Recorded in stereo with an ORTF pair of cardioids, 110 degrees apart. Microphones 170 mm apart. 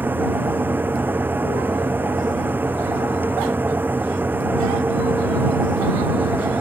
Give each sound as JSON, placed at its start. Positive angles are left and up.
{"t": 0.0, "sound": "a fan", "azimuth_deg": -10}